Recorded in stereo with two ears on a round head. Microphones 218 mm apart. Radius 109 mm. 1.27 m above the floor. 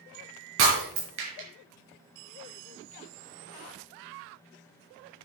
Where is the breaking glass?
60° right (ahead or behind), 4.5 m.